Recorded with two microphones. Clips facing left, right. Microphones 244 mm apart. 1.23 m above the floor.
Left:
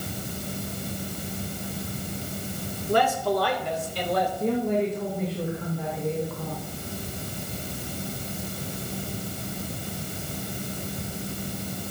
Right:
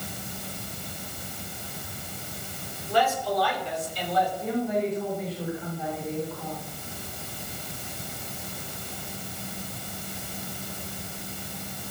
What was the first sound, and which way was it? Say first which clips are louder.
A man speaking: left 3 dB; 50° left (ahead or behind).